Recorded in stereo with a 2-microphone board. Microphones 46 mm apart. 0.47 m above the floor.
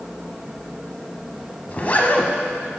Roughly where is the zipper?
Left.